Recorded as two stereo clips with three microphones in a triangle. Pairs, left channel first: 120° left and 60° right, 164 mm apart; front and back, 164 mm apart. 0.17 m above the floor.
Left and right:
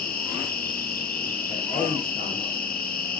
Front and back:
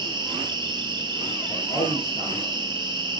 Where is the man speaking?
65° left, 3.5 m.